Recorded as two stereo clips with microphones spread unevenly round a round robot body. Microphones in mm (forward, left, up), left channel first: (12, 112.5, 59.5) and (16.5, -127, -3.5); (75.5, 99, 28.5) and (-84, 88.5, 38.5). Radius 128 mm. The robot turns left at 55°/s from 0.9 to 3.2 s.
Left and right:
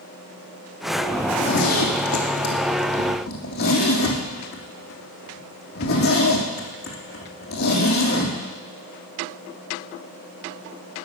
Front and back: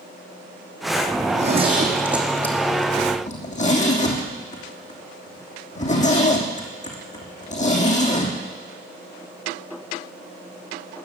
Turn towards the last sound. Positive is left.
turn(degrees=45)